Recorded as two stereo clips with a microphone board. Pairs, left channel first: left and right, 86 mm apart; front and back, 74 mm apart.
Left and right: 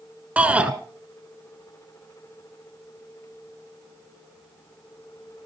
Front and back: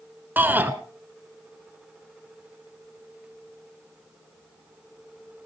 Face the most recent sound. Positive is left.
turn(degrees=-150)